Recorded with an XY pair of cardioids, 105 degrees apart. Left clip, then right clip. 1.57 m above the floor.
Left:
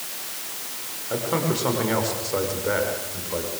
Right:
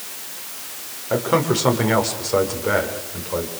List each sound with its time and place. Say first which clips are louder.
1.1 s a man speaking: right 6 dB; 40° right, 6.5 m; by 3.5 s 30° right, 7.5 m